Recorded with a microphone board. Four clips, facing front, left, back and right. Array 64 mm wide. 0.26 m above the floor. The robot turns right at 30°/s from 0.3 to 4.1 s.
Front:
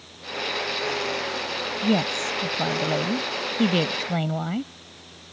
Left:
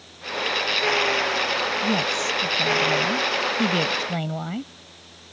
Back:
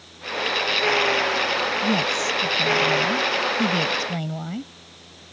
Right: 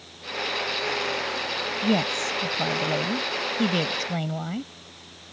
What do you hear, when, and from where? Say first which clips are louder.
1.8 s a woman speaking: left 1 dB, back 1 dB; 45° right; by 4.7 s 25° left